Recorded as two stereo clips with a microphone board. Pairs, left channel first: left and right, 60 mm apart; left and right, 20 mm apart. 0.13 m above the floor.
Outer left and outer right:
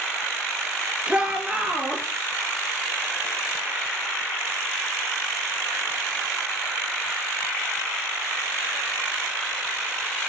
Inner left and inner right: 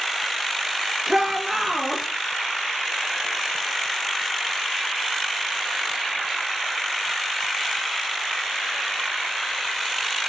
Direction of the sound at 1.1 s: 20° right (ahead or behind).